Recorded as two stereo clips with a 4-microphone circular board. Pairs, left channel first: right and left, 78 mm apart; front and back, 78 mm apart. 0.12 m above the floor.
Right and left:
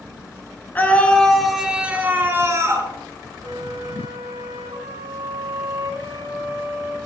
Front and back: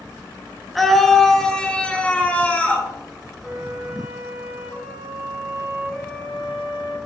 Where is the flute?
95° left, 3 m.